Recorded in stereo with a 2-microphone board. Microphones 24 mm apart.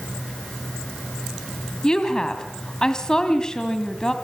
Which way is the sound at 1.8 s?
25° left (ahead or behind).